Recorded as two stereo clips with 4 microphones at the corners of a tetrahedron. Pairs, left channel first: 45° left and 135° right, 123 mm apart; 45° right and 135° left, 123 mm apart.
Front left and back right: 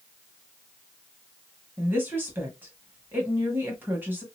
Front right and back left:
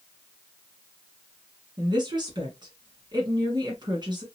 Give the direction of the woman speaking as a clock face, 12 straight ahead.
7 o'clock.